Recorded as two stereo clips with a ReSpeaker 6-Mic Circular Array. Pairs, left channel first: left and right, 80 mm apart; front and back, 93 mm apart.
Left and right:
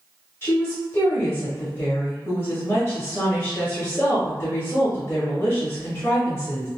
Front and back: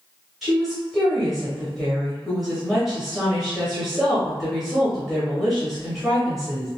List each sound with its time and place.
0.4 s a woman speaking: 95° left, 1.1 m